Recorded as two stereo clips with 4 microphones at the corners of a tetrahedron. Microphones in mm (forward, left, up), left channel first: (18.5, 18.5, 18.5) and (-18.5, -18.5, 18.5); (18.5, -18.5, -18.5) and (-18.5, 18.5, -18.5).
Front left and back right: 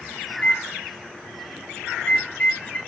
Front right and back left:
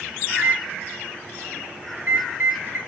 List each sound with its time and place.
0.3 s a microwave: 105° left, 1.3 m